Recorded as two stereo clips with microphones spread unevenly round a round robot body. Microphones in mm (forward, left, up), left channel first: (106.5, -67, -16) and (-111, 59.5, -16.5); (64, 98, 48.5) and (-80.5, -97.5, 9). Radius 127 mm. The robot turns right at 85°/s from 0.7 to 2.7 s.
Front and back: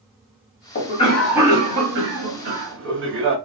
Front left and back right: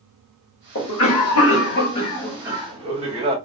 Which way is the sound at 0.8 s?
15° left.